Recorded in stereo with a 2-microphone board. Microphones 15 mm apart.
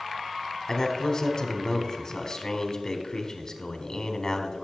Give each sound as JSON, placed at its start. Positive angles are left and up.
{"t": 0.7, "sound": "a man speaking", "side_deg": 35, "distance_m": 1.6}